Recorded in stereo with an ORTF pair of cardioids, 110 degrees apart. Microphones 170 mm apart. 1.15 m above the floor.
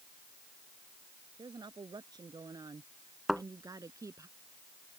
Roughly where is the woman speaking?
Ahead right.